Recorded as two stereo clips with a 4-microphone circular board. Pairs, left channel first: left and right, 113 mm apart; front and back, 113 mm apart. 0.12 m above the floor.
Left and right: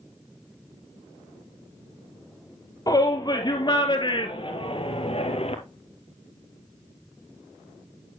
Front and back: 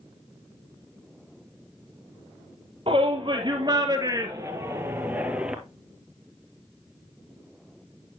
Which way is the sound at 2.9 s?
145° left.